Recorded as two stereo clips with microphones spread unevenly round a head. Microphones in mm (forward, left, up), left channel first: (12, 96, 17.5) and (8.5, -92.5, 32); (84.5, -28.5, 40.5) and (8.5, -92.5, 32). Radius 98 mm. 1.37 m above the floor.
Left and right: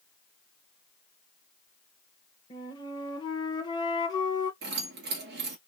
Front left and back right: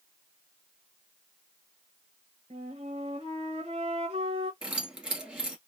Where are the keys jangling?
55° right, 2 m.